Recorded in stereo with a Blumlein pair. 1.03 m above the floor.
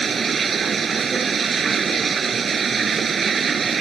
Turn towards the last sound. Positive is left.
turn(degrees=-20)